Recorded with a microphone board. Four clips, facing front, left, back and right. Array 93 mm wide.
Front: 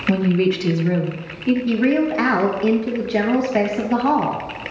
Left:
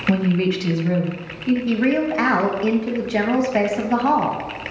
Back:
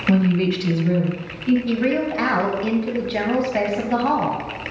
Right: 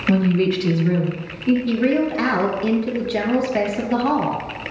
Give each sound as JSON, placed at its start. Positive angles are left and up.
{"t": 0.1, "sound": "a woman speaking", "azimuth_deg": 115, "distance_m": 1.2}
{"t": 1.7, "sound": "a woman speaking", "azimuth_deg": 65, "distance_m": 1.0}